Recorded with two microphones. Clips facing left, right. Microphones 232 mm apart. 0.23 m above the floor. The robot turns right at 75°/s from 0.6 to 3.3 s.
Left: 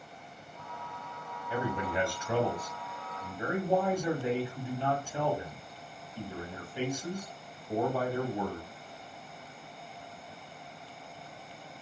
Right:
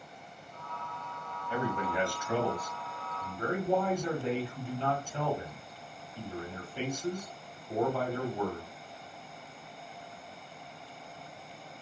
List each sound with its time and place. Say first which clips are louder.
1.5 s a man speaking: even; 10° left (ahead or behind), 1.3 m